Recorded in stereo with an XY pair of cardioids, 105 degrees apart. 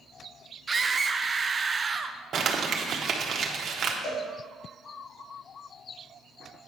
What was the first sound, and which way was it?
A scream, 30° right.